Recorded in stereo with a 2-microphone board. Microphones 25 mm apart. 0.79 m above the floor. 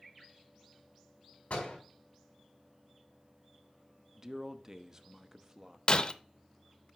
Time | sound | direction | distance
1.5 | a door slam | 75° left (ahead or behind) | 5 m
4.2 | a man speaking | 25° right (ahead or behind) | 0.6 m
5.9 | breaking glass | 45° left (ahead or behind) | 0.6 m